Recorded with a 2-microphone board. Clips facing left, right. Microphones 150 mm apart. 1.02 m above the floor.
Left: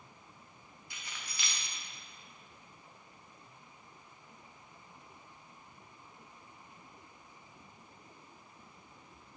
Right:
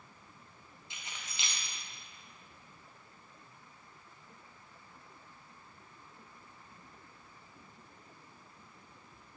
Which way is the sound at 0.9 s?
20° right (ahead or behind).